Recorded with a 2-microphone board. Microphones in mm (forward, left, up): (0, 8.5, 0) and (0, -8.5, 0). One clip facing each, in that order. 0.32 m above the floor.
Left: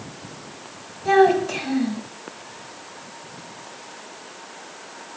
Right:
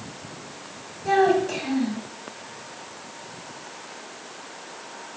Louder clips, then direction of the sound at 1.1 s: Left 3 dB; 15° left (ahead or behind).